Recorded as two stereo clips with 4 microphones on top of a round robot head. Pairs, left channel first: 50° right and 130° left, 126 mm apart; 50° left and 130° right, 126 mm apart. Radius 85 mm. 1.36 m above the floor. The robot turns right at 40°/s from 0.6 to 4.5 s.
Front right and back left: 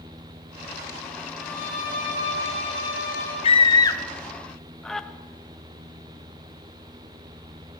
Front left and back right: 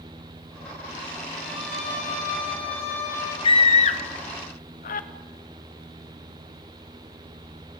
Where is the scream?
5° right, 1.8 m; by 5.1 s 40° left, 1.8 m.